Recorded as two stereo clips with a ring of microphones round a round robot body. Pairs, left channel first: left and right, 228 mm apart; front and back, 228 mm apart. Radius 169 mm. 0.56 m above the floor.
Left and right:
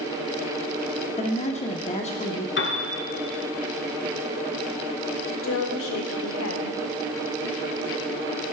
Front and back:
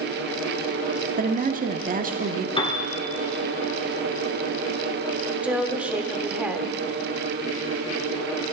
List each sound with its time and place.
1.2 s a woman speaking: 140° left, 1.2 m
2.6 s a piano: 65° left, 1.9 m
5.4 s a woman speaking: 95° left, 1.7 m